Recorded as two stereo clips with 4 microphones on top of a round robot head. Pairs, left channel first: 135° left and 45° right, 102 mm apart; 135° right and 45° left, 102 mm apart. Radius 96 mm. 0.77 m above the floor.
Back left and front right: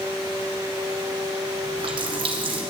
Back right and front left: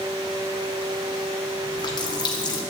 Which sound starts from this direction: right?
A running tap, at 1.6 s.